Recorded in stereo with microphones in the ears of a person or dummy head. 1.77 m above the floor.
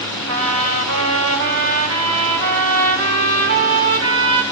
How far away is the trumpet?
About 3 m.